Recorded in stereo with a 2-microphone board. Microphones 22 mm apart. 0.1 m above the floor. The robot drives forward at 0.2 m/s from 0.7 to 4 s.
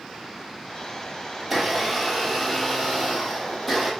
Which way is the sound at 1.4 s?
5° right (ahead or behind).